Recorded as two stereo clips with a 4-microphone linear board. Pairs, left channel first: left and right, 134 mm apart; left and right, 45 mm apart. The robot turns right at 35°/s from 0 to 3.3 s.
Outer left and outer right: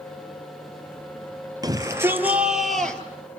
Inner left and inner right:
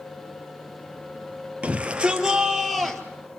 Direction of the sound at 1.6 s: 35° right.